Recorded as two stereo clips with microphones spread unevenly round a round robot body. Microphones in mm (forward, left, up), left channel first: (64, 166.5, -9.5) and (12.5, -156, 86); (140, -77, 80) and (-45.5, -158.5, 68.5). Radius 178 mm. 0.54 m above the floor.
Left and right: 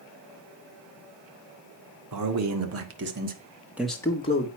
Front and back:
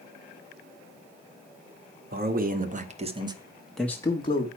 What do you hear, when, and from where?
2.1 s a man speaking: 140° right, 2 m; by 4.5 s 70° left, 1.5 m